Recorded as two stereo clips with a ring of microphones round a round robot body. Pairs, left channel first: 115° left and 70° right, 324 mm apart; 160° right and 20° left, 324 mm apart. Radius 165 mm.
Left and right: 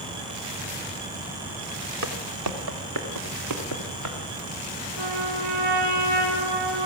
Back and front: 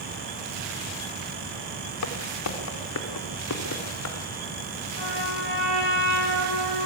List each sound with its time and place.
2.0 s footsteps: 115° right, 2.5 m; by 4.2 s 105° right, 5.5 m
5.0 s a trumpet: 40° right, 8 m